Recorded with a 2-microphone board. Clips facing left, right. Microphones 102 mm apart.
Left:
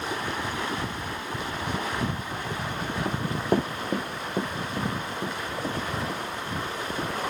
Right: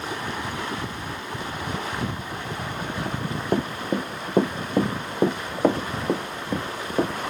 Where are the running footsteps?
15° left (ahead or behind); by 7.2 s 70° right (ahead or behind).